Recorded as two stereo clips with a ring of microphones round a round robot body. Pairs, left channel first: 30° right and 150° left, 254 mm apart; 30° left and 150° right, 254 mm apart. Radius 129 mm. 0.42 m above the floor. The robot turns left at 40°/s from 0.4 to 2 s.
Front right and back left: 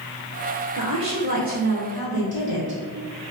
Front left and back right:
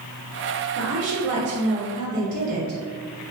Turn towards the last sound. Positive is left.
turn(degrees=165)